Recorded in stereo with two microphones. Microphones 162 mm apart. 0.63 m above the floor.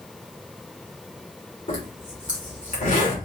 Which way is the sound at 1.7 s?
55° left (ahead or behind).